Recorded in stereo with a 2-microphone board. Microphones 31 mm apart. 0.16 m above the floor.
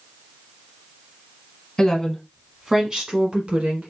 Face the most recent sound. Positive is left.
turn(degrees=-45)  # may be behind; listen again after turning